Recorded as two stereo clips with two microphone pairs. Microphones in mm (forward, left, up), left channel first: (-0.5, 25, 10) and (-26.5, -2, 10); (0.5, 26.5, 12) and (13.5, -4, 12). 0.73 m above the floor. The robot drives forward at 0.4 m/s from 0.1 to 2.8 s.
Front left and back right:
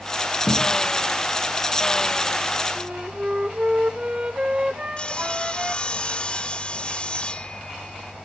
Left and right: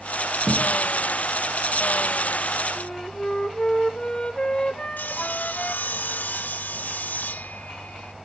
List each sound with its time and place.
0.5 s a thud: 15° right, 4 m
2.8 s a flute: 165° left, 0.8 m
5.0 s sawing: 105° left, 1.0 m